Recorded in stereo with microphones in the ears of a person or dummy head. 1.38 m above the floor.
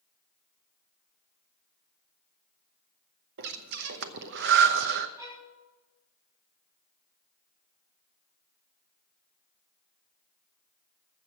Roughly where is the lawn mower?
No lawn mower in this recording.